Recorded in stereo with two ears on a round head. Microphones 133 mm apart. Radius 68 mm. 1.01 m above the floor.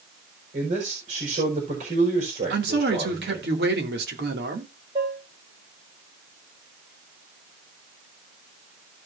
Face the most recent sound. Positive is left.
turn(degrees=-35)  # may be behind; listen again after turning